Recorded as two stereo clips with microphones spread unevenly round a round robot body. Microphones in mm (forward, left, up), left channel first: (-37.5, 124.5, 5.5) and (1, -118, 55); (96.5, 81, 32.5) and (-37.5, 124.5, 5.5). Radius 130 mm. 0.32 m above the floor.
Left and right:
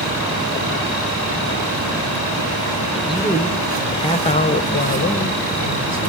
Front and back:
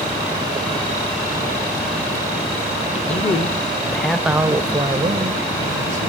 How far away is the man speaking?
About 1.4 m.